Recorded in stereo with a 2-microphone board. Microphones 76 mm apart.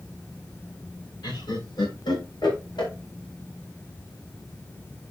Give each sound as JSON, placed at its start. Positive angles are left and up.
{"t": 1.2, "sound": "laughter", "side_deg": 85, "distance_m": 4.0}